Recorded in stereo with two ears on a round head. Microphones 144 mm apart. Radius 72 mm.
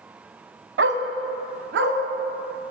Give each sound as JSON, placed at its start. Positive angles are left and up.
{"t": 0.8, "sound": "a dog barking", "side_deg": -85, "distance_m": 1.0}